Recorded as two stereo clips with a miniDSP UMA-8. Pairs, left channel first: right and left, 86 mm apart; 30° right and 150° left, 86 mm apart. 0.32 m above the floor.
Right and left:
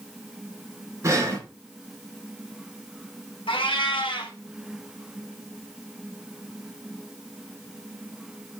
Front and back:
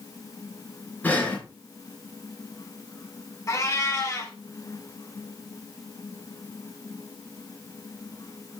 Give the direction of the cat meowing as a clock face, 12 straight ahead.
3 o'clock.